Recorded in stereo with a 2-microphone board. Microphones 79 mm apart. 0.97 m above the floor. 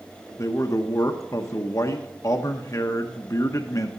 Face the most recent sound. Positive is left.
turn(degrees=40)  # may be behind; listen again after turning